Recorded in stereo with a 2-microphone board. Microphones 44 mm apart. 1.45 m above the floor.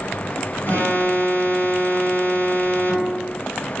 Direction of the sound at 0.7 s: 65° left (ahead or behind).